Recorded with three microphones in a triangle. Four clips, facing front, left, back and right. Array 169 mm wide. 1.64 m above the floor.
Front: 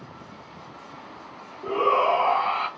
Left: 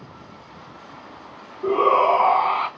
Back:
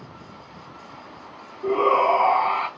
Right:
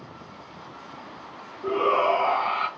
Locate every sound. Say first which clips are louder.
1.6 s a shout: left 5 dB, back 3 dB; 100° left, 1.2 m